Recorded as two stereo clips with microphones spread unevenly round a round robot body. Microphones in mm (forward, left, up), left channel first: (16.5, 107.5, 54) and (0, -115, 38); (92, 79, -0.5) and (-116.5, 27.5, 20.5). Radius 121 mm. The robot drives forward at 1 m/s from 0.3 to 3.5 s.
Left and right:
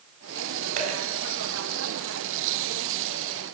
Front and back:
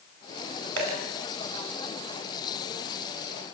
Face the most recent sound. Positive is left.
turn(degrees=-175)